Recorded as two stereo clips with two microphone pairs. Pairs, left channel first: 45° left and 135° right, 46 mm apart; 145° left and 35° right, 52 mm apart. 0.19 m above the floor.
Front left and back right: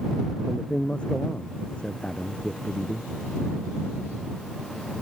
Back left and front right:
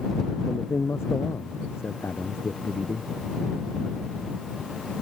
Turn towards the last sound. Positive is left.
turn(degrees=110)